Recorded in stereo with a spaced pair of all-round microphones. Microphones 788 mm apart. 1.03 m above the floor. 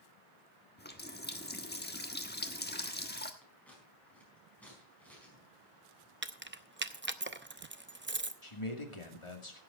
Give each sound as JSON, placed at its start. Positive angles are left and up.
{"t": 0.8, "sound": "a running tap", "side_deg": 15, "distance_m": 1.2}
{"t": 3.4, "sound": "scissors", "side_deg": 0, "distance_m": 4.5}
{"t": 6.2, "sound": "keys jangling", "side_deg": -15, "distance_m": 0.6}
{"t": 8.4, "sound": "a man speaking", "side_deg": 40, "distance_m": 2.0}